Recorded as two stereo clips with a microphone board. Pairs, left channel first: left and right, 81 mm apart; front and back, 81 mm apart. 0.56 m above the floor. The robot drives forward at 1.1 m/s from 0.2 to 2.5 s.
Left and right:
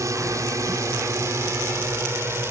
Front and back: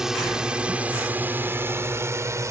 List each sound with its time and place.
0.0 s a drone: 100° right; by 2.5 s 140° right